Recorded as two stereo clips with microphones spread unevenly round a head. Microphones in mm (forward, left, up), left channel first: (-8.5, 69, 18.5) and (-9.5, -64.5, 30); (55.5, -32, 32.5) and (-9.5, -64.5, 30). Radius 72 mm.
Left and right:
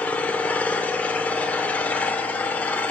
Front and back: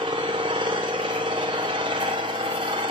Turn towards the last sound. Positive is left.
turn(degrees=170)